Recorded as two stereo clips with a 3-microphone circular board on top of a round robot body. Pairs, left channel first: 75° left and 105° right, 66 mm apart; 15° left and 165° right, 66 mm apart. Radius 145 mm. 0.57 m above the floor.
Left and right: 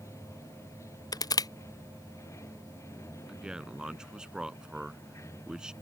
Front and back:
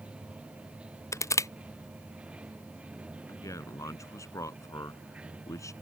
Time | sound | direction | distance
0.0 | running water | 120° left | ?
1.1 | crushing | 55° left | ?
3.3 | a man speaking | 25° right | ?